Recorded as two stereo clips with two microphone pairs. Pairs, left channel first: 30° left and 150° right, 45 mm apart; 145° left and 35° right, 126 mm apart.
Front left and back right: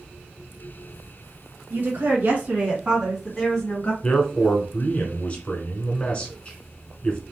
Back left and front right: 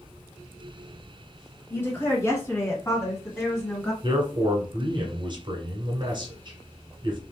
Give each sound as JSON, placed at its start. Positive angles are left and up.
{"t": 1.7, "sound": "a woman speaking", "azimuth_deg": -145, "distance_m": 1.8}
{"t": 4.0, "sound": "a man speaking", "azimuth_deg": -20, "distance_m": 1.3}